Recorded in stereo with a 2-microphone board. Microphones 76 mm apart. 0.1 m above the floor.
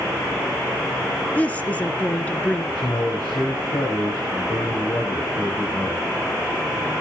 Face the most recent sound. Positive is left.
turn(degrees=75)  # may be behind; listen again after turning